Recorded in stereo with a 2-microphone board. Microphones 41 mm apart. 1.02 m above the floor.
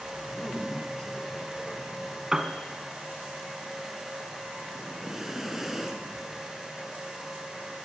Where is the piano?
15° right (ahead or behind), 2 m.